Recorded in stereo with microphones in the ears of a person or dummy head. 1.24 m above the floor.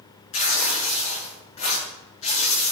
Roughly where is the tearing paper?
Left.